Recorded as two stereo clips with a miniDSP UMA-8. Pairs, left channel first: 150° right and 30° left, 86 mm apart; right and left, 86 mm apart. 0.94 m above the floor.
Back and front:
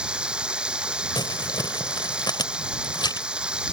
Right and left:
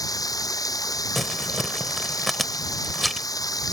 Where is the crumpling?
Straight behind.